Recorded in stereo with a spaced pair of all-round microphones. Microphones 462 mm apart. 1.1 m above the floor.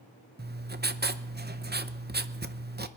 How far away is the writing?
About 0.6 m.